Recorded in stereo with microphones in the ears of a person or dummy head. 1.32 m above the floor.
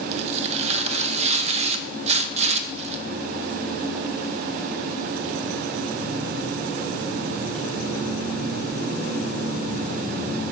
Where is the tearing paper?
35° right (ahead or behind), 0.7 m.